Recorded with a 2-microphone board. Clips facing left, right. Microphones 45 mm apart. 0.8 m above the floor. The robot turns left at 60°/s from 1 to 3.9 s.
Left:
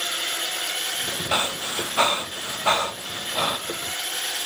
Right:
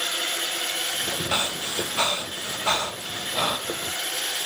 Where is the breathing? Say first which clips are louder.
Left 4 dB; 15° left (ahead or behind), 0.9 m; by 3.6 s 5° left (ahead or behind), 0.9 m.